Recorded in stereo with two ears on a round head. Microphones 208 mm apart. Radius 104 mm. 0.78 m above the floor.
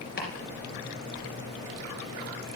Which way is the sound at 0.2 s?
40° left (ahead or behind).